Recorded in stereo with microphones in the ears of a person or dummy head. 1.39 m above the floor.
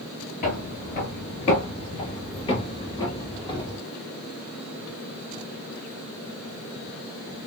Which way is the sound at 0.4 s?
40° left (ahead or behind).